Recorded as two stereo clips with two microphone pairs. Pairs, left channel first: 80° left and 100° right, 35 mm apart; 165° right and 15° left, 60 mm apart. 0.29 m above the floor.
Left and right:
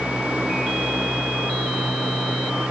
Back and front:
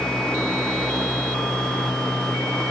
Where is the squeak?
No squeak in this recording.